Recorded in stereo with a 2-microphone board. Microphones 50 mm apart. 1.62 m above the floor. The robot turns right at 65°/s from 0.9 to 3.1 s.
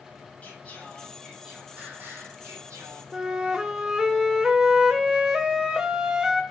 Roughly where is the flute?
Centre.